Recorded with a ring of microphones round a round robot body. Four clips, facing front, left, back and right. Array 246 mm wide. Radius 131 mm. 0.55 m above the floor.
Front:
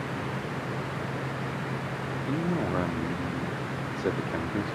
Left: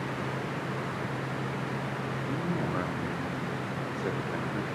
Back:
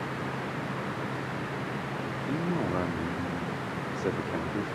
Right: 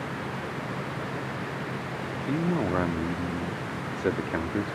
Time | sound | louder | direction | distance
2.3 | a man speaking | right 7 dB, front 1 dB | 80° right | 1.1 m